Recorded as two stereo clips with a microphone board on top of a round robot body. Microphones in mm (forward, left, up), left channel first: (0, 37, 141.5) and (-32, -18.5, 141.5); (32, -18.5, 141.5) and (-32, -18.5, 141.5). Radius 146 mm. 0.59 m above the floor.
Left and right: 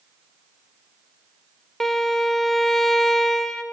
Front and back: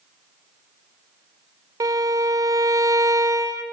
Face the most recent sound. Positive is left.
turn(degrees=145)